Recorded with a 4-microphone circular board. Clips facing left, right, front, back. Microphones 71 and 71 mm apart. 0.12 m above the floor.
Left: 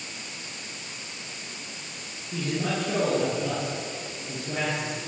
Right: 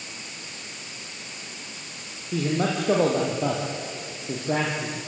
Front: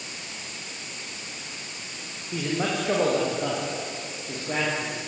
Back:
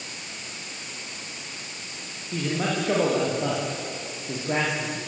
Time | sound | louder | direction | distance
2.3 | a man speaking | right 4 dB, even | 80° right | 6 m